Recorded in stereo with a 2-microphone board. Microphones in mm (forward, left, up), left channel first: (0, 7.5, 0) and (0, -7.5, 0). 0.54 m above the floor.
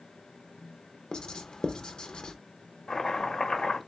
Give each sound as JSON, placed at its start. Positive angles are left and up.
{"t": 1.1, "sound": "writing", "side_deg": 70, "distance_m": 0.5}
{"t": 2.9, "sound": "chopping", "side_deg": 75, "distance_m": 1.0}